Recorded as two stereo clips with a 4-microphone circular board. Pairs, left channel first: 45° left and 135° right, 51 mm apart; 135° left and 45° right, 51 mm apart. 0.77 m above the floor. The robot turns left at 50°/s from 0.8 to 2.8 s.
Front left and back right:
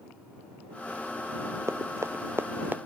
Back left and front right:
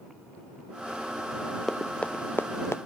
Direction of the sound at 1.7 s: 140° right.